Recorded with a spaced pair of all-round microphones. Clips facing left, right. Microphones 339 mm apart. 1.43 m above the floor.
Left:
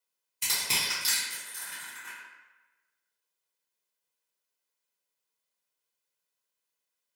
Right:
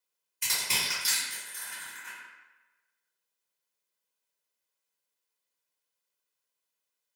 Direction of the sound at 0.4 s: 50° left (ahead or behind).